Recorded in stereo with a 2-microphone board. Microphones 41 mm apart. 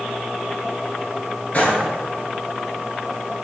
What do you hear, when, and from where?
1.5 s a gunshot: 40° left (ahead or behind), 0.9 m